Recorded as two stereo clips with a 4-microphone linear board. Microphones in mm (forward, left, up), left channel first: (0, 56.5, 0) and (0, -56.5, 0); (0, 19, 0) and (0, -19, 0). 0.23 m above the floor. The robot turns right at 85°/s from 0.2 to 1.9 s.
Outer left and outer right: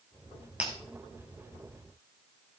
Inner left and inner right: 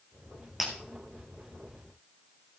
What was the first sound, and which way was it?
Breaking glass, 10° right (ahead or behind).